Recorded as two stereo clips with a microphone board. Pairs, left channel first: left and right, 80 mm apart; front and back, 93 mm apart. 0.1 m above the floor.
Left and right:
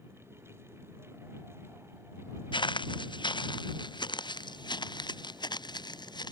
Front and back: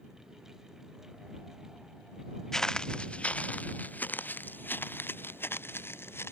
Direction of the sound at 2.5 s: 85° left.